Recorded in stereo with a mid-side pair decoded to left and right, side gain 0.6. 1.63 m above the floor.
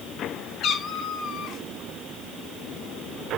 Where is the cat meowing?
55° left, 2.5 m.